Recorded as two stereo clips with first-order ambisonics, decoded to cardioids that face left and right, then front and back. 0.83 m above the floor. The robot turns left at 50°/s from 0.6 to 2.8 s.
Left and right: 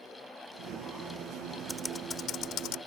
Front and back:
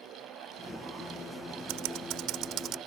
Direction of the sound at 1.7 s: Straight behind.